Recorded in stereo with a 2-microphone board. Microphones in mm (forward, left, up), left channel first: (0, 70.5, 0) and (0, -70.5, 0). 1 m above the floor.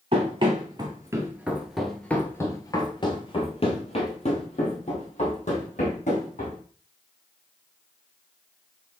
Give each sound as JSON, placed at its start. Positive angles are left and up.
{"t": 0.1, "sound": "running footsteps", "side_deg": -40, "distance_m": 1.3}